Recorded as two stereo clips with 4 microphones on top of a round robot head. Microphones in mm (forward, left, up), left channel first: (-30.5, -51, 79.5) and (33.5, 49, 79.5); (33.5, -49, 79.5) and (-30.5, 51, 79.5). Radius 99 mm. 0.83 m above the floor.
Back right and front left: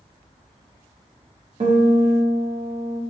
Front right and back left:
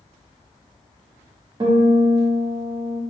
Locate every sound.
1.6 s a guitar: 75° left, 0.9 m